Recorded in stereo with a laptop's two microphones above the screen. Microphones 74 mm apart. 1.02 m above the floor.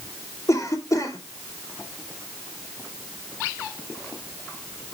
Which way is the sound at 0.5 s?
55° left (ahead or behind).